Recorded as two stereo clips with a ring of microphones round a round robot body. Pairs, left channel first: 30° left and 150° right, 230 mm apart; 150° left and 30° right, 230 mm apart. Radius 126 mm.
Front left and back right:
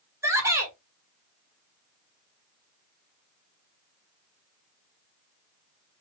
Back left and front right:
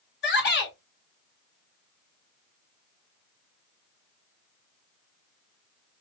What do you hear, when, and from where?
0.2 s a shout: 135° left, 2.0 m